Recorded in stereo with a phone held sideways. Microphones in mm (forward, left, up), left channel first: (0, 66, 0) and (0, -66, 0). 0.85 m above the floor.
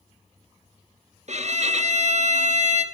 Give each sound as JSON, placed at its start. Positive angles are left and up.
{"t": 1.3, "sound": "a violin", "side_deg": -60, "distance_m": 0.9}